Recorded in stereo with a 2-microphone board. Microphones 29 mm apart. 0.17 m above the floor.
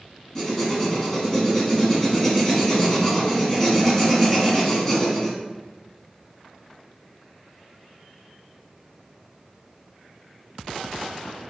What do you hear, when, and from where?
0.3 s writing: 20° left (ahead or behind), 1.0 m